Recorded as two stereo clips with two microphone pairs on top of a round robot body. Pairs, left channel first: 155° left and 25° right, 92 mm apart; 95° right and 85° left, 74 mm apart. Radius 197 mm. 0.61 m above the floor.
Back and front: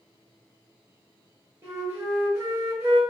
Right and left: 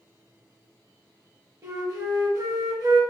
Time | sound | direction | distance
1.6 | a flute | 35° left | 0.8 m